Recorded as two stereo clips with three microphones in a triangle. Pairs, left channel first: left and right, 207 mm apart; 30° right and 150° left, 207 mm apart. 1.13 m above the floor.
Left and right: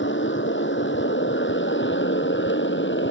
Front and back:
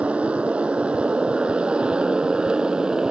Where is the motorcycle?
65° left.